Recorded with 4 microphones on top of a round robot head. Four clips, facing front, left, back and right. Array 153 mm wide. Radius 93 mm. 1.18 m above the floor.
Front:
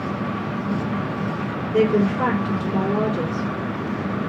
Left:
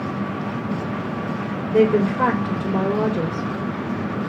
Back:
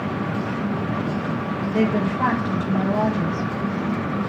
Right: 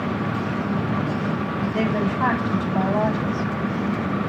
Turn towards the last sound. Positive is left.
turn(degrees=70)